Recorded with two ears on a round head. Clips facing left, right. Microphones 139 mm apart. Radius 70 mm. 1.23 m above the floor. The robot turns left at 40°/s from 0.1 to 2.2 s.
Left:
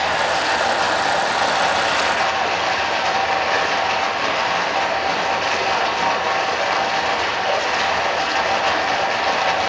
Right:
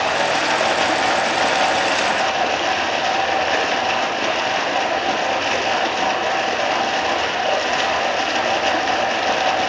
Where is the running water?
50° right, 4.5 m; by 9.7 s 135° right, 4.5 m.